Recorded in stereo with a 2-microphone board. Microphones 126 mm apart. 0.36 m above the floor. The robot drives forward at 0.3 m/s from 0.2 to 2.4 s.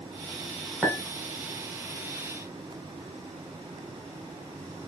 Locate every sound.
0.8 s a clink: 5° right (ahead or behind), 1.1 m